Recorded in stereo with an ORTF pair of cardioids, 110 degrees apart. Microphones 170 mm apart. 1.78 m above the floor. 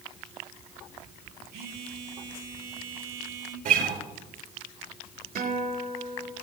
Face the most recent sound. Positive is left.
turn(degrees=-65)